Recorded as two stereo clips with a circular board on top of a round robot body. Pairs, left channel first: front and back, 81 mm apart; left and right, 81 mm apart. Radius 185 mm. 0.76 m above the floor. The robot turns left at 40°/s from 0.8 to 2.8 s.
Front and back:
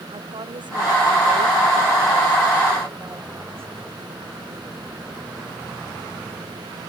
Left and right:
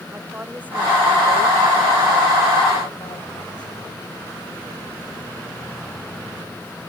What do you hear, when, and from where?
0.1 s a woman speaking: 160° right; by 3.7 s 120° left